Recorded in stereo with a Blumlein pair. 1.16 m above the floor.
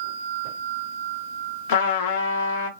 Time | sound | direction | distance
1.7 | a trumpet | 55° left | 0.6 m